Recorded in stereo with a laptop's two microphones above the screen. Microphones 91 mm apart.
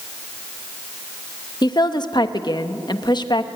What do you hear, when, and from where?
1.6 s a woman speaking: 55° left (ahead or behind), 1.0 m